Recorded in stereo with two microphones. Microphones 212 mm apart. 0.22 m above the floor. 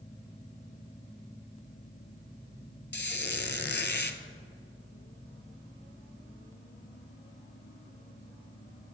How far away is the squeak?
About 0.5 m.